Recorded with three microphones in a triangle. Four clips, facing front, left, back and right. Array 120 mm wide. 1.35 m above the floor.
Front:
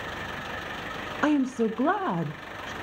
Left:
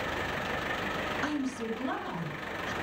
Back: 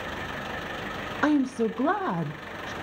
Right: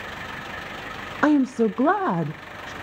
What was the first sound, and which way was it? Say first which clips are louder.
A woman speaking: right 18 dB, even; 85° right.